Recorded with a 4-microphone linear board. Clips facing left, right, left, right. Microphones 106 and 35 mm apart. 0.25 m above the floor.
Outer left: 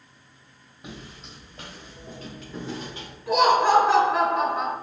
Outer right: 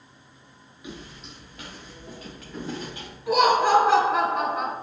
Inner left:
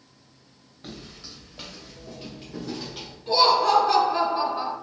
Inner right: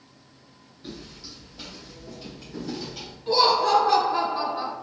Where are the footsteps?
45° left (ahead or behind), 1.7 m; by 3.2 s 25° left (ahead or behind), 4 m.